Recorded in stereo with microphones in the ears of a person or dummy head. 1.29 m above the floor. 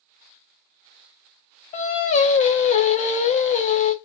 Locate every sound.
1.7 s singing: 35° left (ahead or behind), 0.5 m